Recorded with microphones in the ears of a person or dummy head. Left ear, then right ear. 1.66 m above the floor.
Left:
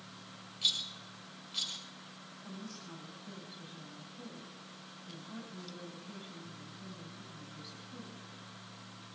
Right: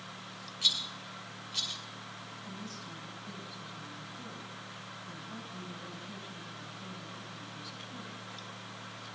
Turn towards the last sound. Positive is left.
turn(degrees=-10)  # may be behind; listen again after turning